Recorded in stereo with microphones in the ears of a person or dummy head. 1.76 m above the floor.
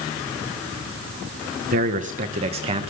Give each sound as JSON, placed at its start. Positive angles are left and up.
{"t": 1.7, "sound": "a man speaking", "side_deg": -45, "distance_m": 1.2}